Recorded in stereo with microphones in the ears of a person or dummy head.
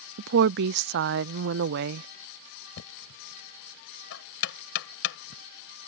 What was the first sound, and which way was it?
A woman speaking, 65° right (ahead or behind).